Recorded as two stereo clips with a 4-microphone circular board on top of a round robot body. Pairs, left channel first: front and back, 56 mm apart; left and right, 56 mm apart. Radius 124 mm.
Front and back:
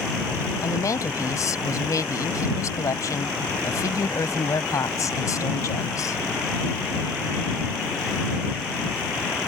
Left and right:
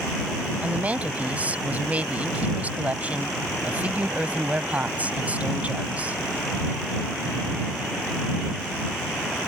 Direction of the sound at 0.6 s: 25° right.